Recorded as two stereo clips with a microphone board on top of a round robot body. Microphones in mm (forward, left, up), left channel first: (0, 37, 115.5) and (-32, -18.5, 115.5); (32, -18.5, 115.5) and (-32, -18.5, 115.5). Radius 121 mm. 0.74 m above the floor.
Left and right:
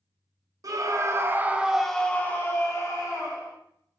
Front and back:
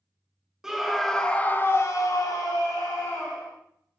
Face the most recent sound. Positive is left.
turn(degrees=30)